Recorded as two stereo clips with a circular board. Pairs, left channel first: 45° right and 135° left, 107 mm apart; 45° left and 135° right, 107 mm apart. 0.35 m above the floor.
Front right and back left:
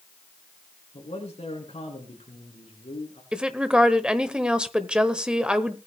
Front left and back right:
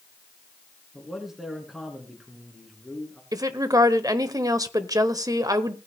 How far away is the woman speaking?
About 1.0 m.